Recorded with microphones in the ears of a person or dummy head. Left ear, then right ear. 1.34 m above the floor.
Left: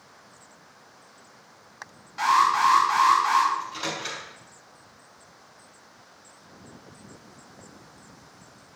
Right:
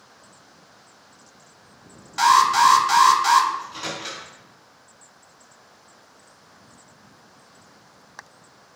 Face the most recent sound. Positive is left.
turn(degrees=10)  # may be behind; listen again after turning